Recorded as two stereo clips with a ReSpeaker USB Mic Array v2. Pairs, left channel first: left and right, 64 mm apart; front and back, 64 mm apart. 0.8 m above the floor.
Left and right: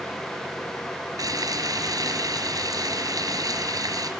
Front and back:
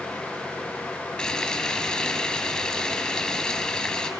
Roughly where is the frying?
Right.